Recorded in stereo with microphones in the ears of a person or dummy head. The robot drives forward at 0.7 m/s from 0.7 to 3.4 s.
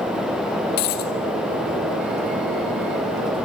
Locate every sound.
0.8 s a dropped coin: 50° left (ahead or behind), 3.5 m; by 1.1 s 55° left (ahead or behind), 3.5 m